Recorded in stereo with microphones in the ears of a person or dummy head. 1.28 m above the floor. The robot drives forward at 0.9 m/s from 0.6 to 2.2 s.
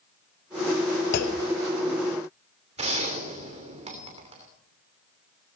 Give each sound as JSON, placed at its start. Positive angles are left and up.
{"t": 1.1, "sound": "a clunk", "side_deg": 60, "distance_m": 1.1}
{"t": 2.8, "sound": "a gunshot", "side_deg": -35, "distance_m": 3.0}